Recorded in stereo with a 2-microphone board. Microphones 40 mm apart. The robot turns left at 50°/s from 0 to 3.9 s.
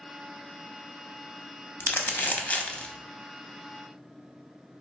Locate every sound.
1.8 s crumpling: 75° left (ahead or behind), 0.5 m; by 2.9 s 25° left (ahead or behind), 0.5 m